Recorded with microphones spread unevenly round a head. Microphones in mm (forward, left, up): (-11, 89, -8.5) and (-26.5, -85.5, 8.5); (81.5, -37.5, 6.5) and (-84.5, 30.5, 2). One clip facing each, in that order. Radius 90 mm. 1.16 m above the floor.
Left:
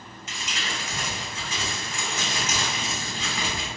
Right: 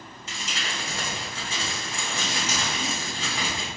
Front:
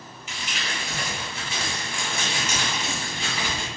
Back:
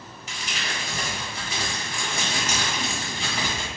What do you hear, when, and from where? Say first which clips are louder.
0.3 s crumpling: even, even; 150° right, 1.1 m